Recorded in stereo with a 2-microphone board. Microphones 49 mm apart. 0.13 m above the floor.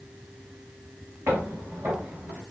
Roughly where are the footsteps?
Right.